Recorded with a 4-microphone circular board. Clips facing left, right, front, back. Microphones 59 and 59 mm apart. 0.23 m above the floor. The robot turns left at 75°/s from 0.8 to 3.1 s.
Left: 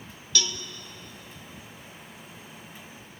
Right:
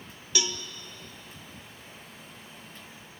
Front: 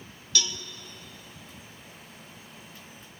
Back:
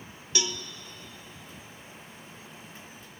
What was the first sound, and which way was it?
A cowbell, 135° right.